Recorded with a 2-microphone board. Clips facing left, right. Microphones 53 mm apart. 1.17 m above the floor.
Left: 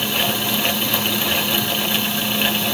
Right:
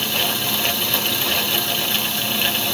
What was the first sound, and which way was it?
Only background noise.